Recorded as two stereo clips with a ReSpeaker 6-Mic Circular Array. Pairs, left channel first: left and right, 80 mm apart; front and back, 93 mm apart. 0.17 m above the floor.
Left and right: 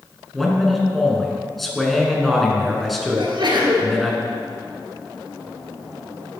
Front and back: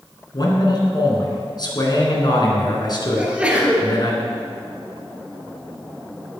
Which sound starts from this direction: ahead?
A man speaking, at 0.3 s.